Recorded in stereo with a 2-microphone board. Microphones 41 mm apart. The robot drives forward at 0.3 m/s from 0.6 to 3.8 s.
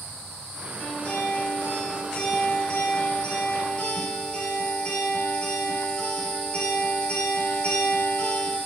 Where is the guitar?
40° left (ahead or behind), 1.3 m; by 8.6 s 25° left (ahead or behind), 2 m.